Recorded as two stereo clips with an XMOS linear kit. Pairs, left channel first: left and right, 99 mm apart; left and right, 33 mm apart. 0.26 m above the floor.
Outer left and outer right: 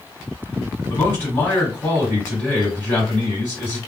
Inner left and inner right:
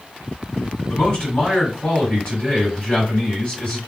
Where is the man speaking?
30° left (ahead or behind), 1.9 m.